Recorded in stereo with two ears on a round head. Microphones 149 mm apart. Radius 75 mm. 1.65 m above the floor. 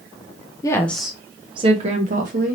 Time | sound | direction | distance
0.6 | a woman speaking | 20° left (ahead or behind) | 0.6 m